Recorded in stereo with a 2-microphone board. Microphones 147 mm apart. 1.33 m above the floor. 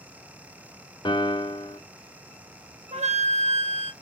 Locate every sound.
1.1 s a piano: 30° left (ahead or behind), 0.5 m
2.9 s a flute: 50° right (ahead or behind), 1.0 m